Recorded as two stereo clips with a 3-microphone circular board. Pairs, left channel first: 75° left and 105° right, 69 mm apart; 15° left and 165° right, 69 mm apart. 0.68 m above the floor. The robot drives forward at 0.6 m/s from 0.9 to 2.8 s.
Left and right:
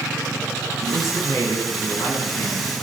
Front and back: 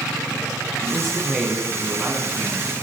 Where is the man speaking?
105° left, 6.5 m; by 2.7 s 115° left, 7 m.